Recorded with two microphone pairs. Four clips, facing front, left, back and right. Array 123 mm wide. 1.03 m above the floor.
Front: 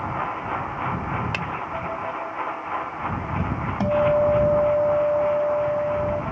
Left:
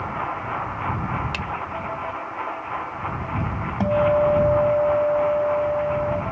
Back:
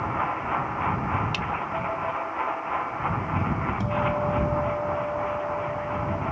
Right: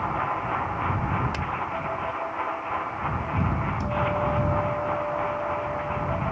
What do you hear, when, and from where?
1.3 s a finger snap: 10° right
3.8 s a guitar: 45° left